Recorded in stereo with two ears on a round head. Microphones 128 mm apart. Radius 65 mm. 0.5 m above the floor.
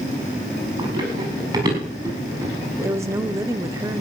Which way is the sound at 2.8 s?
20° right (ahead or behind).